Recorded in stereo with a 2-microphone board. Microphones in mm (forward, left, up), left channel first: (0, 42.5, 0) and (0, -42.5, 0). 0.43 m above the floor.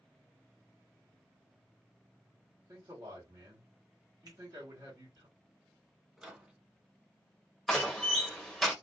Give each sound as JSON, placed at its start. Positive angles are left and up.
{"t": 2.7, "sound": "a man speaking", "side_deg": -50, "distance_m": 1.8}
{"t": 4.3, "sound": "a finger snap", "side_deg": -50, "distance_m": 1.4}
{"t": 6.2, "sound": "a microwave", "side_deg": -10, "distance_m": 1.2}
{"t": 7.7, "sound": "a door slam", "side_deg": 0, "distance_m": 1.1}